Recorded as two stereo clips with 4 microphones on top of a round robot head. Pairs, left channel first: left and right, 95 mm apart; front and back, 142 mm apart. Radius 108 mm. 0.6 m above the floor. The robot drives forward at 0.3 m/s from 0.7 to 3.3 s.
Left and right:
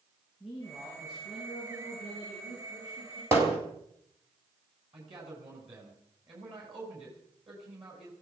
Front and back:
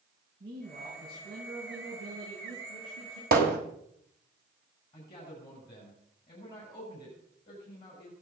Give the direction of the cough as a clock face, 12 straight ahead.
No cough in this recording.